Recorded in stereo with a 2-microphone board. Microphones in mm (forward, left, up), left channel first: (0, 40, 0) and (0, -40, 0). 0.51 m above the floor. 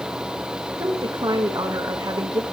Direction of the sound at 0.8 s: 55° right (ahead or behind).